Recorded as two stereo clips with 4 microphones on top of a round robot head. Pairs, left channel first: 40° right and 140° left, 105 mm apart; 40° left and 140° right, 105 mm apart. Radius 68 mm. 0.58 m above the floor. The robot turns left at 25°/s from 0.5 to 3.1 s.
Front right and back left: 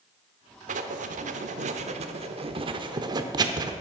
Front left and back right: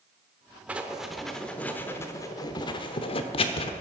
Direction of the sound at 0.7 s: 145° left.